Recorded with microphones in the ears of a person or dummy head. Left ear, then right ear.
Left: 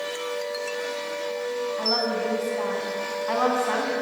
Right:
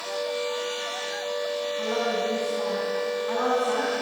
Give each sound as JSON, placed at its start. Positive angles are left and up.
{"t": 1.8, "sound": "a woman speaking", "side_deg": 30, "distance_m": 8.0}